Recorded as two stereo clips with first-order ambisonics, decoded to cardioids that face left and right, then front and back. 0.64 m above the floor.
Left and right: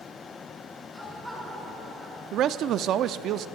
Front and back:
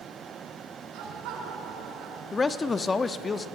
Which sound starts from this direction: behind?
Laughter, at 0.9 s.